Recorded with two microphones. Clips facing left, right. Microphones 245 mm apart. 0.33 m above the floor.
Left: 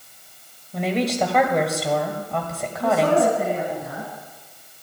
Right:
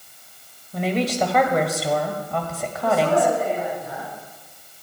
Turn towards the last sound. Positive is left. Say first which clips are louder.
# left 1 dB
turn(degrees=70)  # may be behind; listen again after turning